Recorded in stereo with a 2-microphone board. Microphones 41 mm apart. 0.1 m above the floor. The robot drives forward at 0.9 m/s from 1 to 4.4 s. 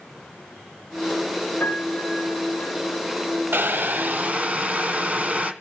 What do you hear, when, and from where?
1.6 s a piano: 50° left (ahead or behind), 5.5 m; by 2.7 s 40° left (ahead or behind), 6 m
3.5 s boiling: 55° right (ahead or behind), 1.1 m; by 5.5 s 35° right (ahead or behind), 1.6 m